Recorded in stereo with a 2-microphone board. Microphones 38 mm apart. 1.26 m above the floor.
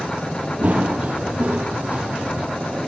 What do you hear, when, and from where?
0.6 s running footsteps: 45° right (ahead or behind), 1.8 m; by 2.5 s 40° right (ahead or behind), 2.5 m